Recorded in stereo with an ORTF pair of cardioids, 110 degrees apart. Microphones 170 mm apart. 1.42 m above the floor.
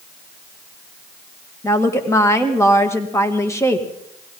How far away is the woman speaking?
About 2.0 m.